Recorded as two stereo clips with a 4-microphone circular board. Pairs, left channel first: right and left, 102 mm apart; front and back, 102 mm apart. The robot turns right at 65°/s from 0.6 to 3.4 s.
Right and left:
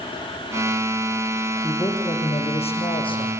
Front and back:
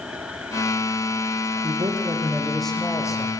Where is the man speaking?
155° right, 6.5 m; by 3.3 s 45° right, 6.5 m.